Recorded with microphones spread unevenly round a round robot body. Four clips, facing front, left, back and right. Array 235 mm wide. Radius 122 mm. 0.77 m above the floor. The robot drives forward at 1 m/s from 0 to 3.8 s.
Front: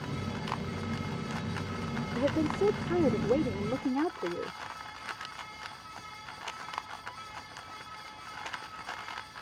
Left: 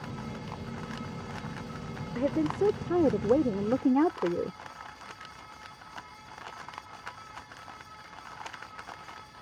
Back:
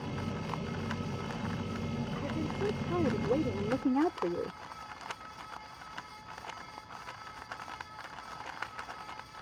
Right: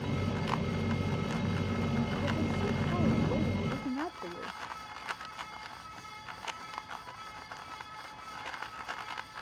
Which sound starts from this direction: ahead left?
A woman speaking, at 2.1 s.